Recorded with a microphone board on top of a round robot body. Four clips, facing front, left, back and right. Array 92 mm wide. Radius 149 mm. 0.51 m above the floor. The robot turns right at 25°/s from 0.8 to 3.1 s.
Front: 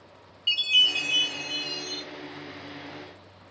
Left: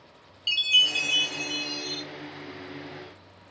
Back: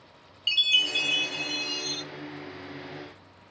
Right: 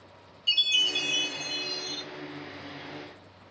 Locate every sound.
0.5 s a chime: 150° left, 0.6 m; by 2.0 s straight behind, 0.6 m